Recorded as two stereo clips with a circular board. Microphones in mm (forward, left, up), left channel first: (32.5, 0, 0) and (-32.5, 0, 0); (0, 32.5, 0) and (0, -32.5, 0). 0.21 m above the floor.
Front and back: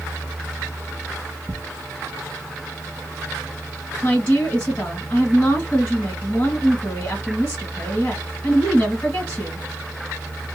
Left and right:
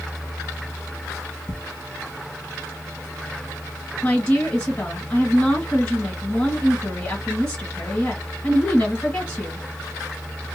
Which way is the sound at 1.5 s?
110° left.